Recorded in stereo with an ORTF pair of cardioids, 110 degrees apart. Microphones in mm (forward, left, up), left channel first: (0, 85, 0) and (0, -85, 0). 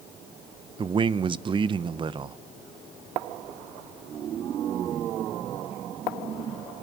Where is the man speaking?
30° right, 0.7 m.